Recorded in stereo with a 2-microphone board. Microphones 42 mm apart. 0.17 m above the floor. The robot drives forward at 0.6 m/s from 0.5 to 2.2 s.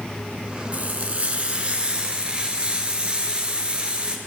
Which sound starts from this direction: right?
Frying, at 0.7 s.